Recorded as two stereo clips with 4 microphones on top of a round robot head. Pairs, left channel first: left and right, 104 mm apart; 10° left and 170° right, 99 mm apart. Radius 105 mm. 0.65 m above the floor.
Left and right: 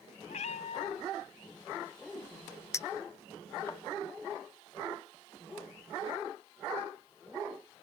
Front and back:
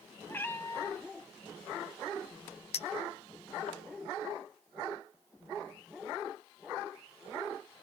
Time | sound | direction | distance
0.3 | a cat meowing | 80° left | 1.6 m
2.7 | a clink | 25° left | 0.7 m